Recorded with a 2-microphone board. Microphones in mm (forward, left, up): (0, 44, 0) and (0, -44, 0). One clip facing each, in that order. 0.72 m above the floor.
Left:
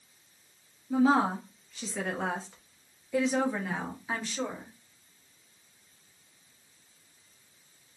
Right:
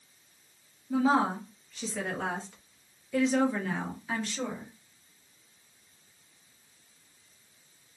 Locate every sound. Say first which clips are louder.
0.9 s a woman speaking: left 1 dB; centre (ahead or behind), 1.4 m; by 4.7 s 10° left (ahead or behind), 1.9 m